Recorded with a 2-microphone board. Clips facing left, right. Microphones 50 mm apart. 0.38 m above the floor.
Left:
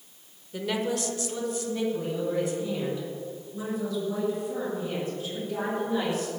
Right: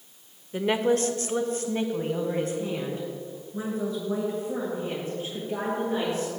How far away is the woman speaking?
About 0.9 m.